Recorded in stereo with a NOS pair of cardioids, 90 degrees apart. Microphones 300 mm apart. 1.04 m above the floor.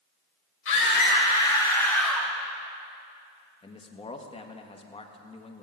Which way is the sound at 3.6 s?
20° left.